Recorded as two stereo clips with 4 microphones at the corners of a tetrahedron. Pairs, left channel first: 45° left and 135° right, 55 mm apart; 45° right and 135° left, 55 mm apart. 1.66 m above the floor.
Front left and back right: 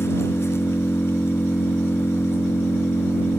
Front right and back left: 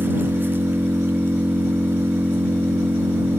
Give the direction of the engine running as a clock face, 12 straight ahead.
9 o'clock.